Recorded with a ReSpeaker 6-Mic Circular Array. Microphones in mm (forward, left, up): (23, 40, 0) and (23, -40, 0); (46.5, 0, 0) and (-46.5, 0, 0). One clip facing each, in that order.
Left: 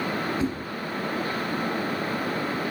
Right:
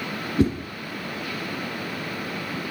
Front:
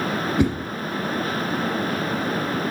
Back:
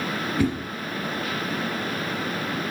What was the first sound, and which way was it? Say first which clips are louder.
A whoosh: right 9 dB, front 2 dB; 65° right.